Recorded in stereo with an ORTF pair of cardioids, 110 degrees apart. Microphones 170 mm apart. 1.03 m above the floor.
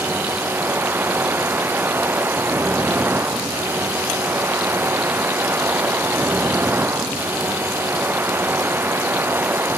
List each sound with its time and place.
0.0 s a machine running: 10° right